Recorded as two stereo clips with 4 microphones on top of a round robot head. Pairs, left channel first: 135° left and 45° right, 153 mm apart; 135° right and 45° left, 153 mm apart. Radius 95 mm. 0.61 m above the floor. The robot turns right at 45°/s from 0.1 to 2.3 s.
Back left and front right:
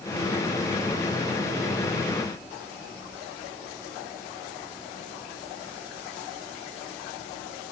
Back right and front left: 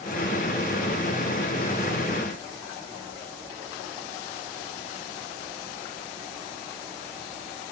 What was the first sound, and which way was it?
Only background noise.